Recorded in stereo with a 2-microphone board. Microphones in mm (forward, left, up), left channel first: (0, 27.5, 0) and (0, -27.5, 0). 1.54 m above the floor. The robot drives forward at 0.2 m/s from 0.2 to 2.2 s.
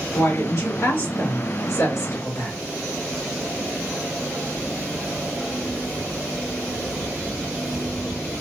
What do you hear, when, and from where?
0.1 s a woman speaking: 65° left (ahead or behind), 2 m; by 2.5 s 55° left (ahead or behind), 2.5 m